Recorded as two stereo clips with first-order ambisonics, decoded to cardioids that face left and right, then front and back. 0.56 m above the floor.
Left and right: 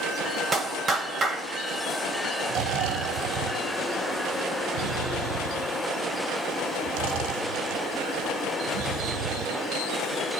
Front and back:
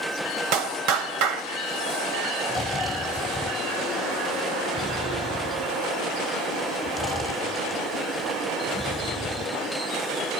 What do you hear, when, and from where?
0.5 s a clap: 160° right, 2.5 m
2.5 s snoring: 85° right, 3 m